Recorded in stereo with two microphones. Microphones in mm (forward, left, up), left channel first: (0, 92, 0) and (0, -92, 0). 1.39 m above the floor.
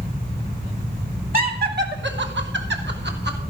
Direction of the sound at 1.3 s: 50° right (ahead or behind).